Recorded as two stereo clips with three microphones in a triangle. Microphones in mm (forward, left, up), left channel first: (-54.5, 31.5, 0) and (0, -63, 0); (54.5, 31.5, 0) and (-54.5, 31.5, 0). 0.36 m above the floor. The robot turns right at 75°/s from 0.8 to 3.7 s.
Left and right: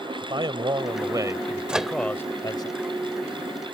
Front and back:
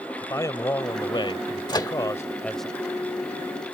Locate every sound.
0.2 s a man speaking: 50° right; by 2.7 s 95° left
1.7 s a microwave: 15° left; by 1.9 s 35° left